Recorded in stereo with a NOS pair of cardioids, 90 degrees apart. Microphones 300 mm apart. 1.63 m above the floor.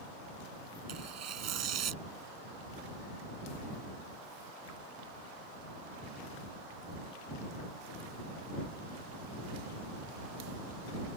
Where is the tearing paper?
60° right.